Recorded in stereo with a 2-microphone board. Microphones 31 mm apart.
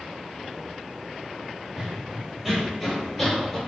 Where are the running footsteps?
5° right (ahead or behind), 1.8 m; by 3.6 s 10° left (ahead or behind), 1.4 m.